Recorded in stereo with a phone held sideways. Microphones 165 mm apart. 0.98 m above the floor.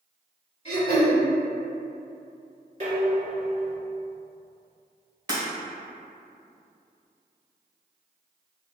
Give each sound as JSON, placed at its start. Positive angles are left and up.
{"t": 0.7, "sound": "throat clearing", "side_deg": 40, "distance_m": 1.6}
{"t": 2.8, "sound": "dishes clattering", "side_deg": -45, "distance_m": 1.4}
{"t": 5.3, "sound": "breaking glass", "side_deg": -25, "distance_m": 1.7}